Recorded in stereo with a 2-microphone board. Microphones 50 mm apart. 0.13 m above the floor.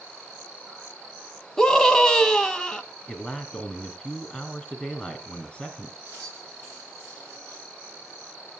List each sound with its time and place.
1.6 s a scream: 10° left (ahead or behind), 1.1 m
3.1 s a man speaking: 15° left (ahead or behind), 1.7 m
6.0 s keys jangling: 30° right (ahead or behind), 9.5 m